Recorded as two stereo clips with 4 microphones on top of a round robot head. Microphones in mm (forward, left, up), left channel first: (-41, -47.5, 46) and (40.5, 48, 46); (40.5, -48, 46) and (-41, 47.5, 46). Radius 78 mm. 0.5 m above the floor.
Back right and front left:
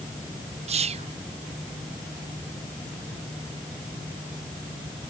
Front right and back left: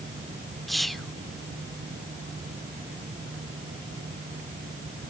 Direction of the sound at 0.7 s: 40° left.